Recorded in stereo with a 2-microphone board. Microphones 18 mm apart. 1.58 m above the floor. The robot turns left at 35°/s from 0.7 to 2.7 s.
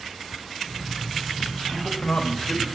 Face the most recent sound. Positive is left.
turn(degrees=85)